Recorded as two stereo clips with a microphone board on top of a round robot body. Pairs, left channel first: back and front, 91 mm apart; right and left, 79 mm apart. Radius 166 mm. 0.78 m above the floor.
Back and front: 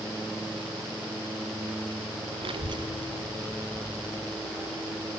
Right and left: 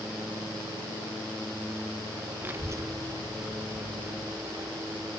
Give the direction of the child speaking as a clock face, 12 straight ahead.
11 o'clock.